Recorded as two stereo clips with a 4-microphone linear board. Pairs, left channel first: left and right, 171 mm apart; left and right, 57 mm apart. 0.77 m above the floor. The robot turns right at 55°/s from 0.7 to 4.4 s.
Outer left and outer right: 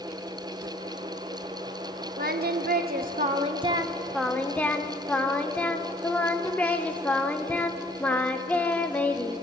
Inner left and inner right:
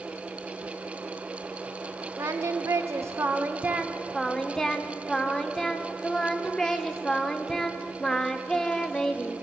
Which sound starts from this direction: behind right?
Singing, at 2.2 s.